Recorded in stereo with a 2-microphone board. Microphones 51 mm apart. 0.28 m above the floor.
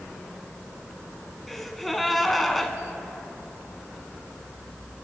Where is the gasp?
Centre (ahead or behind), 1.1 m.